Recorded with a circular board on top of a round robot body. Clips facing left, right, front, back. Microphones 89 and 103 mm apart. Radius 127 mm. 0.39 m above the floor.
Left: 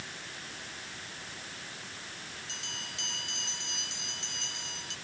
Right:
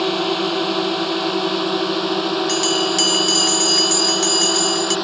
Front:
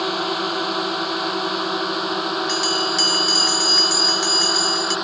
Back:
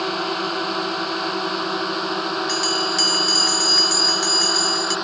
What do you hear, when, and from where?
0.0 s a drone: 85° right; by 5.1 s 90° right
2.5 s a bell: 90° right